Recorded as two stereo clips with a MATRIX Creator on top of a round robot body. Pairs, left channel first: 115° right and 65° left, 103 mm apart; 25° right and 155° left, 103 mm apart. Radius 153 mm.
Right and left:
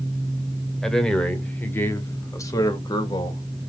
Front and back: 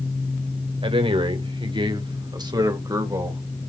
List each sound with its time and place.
0.8 s a man speaking: 165° left, 2.5 m; by 3.4 s 145° right, 2.5 m